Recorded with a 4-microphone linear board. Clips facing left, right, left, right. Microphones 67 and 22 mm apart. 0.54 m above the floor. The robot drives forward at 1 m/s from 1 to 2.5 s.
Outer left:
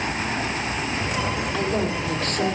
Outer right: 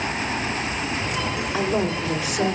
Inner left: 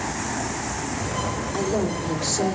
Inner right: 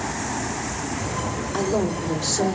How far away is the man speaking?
About 1.5 m.